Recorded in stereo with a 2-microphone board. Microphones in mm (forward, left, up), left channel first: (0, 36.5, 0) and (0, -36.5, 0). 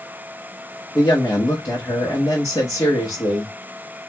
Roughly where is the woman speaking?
Left.